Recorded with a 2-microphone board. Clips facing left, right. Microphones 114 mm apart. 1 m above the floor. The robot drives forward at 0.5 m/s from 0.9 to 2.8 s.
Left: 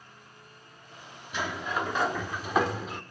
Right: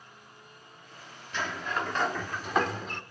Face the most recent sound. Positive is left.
turn(degrees=5)  # may be behind; listen again after turning